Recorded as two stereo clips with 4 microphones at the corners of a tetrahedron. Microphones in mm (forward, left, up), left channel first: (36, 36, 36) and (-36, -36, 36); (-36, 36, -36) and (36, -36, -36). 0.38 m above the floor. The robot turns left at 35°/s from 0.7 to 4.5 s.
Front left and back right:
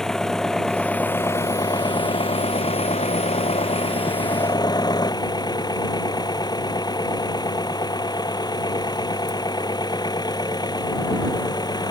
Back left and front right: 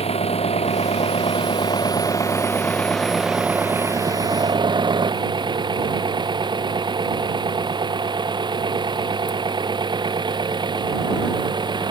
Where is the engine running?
130° left; by 11.9 s 5° right.